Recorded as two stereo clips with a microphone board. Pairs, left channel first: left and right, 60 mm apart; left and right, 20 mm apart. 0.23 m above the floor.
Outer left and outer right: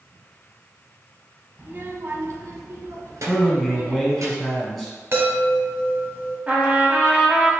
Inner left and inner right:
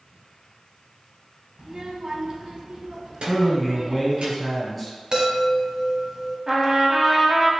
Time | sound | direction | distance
1.6 | a child speaking | 35° right (ahead or behind) | 0.7 m
3.3 | a man speaking | 5° left (ahead or behind) | 1.7 m
5.1 | a chime | 50° right (ahead or behind) | 1.4 m
6.5 | a trumpet | 25° right (ahead or behind) | 1.0 m